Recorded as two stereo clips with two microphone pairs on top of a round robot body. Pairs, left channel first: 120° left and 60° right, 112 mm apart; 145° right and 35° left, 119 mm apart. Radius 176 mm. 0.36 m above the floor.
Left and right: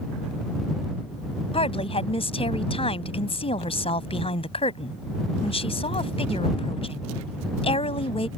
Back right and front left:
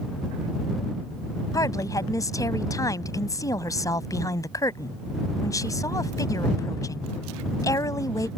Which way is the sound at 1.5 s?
155° left.